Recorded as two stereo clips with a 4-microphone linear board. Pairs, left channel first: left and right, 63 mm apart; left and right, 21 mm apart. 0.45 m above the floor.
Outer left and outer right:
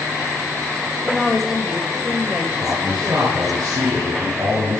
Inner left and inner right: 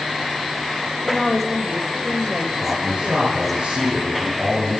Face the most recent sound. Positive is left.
turn(degrees=-80)